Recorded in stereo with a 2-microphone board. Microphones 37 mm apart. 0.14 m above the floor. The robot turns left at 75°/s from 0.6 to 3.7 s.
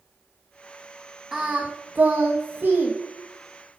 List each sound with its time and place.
1.3 s singing: 15° right, 3 m; by 2.9 s 135° right, 3 m